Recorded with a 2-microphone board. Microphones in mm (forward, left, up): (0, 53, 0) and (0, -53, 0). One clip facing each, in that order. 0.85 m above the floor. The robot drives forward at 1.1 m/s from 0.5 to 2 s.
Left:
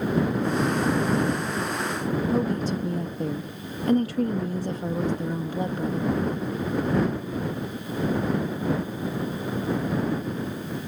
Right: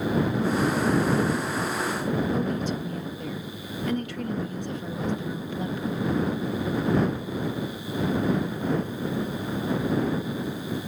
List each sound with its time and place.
2.3 s a woman speaking: 35° left (ahead or behind)